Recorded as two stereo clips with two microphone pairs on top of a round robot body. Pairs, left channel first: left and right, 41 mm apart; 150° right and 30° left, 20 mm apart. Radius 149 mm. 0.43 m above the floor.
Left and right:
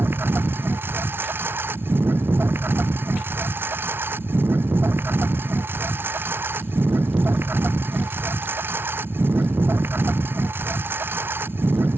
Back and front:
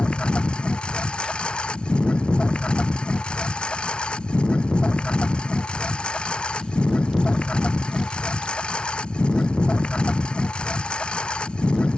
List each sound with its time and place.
0.0 s a lawn mower: 120° right